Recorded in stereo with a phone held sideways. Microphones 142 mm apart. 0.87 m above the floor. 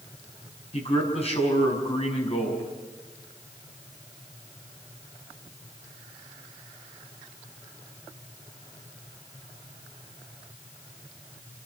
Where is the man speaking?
45° left (ahead or behind), 6 m.